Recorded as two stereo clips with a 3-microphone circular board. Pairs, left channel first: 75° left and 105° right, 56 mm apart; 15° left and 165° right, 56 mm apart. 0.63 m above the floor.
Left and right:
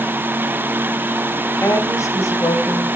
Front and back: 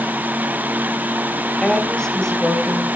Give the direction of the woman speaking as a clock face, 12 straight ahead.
9 o'clock.